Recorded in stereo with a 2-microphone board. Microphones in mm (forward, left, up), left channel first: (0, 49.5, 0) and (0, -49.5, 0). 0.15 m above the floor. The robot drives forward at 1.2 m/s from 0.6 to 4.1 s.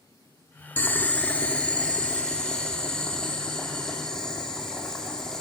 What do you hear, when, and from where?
0.8 s boiling: 20° left (ahead or behind), 1.2 m; by 5.4 s 5° left (ahead or behind), 5 m